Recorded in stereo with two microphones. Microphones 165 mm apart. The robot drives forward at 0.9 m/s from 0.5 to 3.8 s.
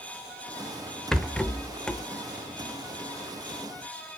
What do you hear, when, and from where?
1.1 s a rattle: 5° left (ahead or behind), 0.7 m